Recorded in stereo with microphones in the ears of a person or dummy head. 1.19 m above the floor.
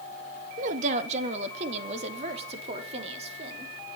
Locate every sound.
0.6 s a woman speaking: 45° right (ahead or behind), 1.4 m; by 3.7 s 35° right (ahead or behind), 3.5 m